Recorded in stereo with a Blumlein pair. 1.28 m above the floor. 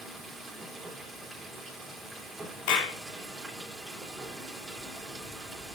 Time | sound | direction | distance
0.0 | running water | 10° right | 4 m
2.7 | a clap | 40° left | 2.5 m